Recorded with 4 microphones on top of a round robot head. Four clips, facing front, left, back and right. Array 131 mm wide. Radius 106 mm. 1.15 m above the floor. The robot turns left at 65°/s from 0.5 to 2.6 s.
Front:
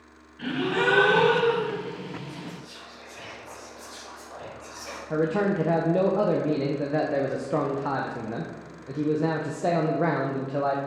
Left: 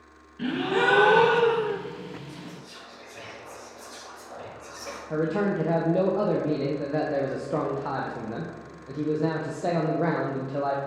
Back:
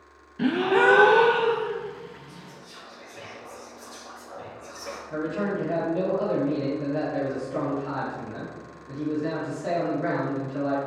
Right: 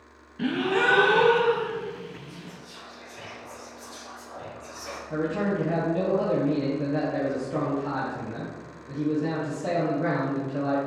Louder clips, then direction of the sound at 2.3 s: Left 2 dB, front 6 dB; 150° left.